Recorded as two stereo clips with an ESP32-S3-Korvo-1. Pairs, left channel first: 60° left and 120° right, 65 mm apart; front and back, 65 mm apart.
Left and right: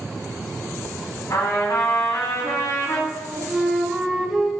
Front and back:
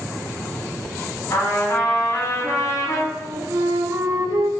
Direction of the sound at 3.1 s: 150° left.